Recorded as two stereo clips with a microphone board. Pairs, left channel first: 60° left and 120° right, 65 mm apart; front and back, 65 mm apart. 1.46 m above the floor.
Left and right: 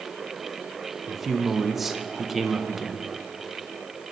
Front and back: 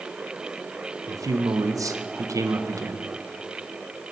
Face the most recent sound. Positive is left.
turn(degrees=155)